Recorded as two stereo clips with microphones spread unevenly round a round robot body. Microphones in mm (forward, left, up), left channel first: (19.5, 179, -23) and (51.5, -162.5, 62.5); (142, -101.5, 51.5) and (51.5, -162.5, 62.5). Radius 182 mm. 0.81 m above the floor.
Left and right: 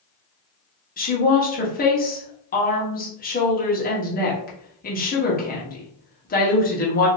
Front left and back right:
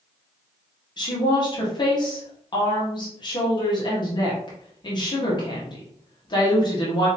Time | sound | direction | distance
1.0 | a woman speaking | 55° left | 1.2 m